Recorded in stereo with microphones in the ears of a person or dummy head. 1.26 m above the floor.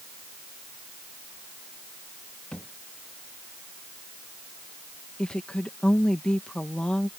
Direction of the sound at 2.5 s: Centre (ahead or behind).